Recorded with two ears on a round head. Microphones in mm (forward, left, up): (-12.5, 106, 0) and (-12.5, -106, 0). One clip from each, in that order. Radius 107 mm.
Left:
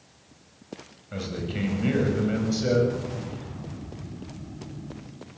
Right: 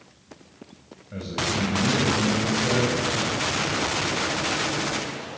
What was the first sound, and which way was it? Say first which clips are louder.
A man speaking: right 6 dB; 25° left (ahead or behind).